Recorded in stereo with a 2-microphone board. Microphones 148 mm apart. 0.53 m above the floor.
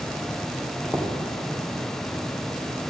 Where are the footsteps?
5° left (ahead or behind), 2.5 m.